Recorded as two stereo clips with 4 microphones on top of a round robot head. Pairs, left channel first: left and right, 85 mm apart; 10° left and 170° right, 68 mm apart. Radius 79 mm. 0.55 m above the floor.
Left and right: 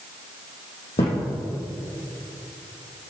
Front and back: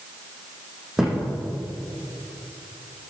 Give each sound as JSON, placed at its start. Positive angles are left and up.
{"t": 1.0, "sound": "a thud", "azimuth_deg": 105, "distance_m": 4.5}